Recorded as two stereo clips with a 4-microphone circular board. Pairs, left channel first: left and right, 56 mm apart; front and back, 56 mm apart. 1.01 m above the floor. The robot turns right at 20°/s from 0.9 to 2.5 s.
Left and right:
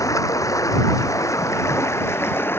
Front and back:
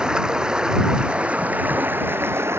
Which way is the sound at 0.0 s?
105° left.